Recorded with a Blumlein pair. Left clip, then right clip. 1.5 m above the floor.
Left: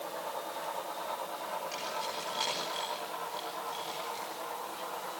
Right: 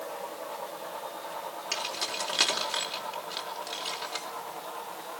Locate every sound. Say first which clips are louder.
1.7 s keys jangling: right 4 dB; 55° right, 4 m